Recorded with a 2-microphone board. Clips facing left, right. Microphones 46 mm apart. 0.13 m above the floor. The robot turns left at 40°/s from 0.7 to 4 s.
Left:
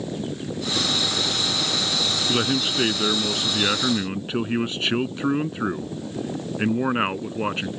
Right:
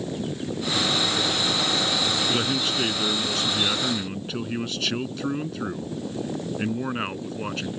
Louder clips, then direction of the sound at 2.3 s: Left 2 dB; 15° left (ahead or behind).